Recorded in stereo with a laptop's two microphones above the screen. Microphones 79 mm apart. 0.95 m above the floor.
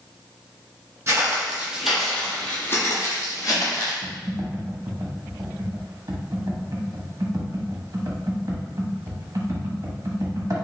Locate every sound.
1.1 s footsteps: 30° right (ahead or behind), 1.3 m; by 3.9 s 55° left (ahead or behind), 1.7 m
4.0 s typing on a keyboard: 45° right (ahead or behind), 0.8 m